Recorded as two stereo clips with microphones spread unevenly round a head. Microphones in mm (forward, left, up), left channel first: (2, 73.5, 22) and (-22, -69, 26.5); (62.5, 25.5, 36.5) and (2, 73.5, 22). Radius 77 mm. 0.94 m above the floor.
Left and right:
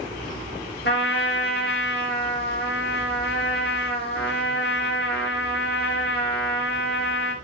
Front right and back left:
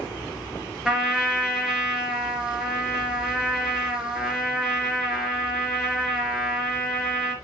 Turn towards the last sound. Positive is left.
turn(degrees=60)